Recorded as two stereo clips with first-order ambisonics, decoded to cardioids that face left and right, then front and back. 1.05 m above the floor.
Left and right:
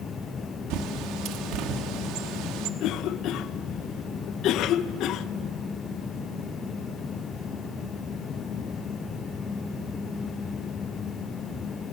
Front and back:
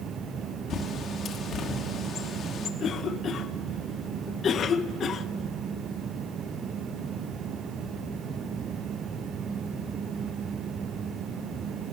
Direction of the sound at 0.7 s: 60° right.